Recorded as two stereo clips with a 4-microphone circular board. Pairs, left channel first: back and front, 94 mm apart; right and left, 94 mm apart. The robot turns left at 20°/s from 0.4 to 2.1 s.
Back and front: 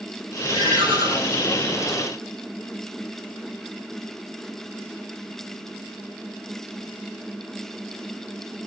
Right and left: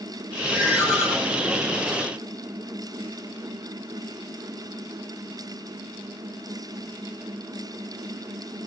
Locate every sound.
0.5 s a ringtone: 30° left, 8 m; by 1.1 s 20° left, 8 m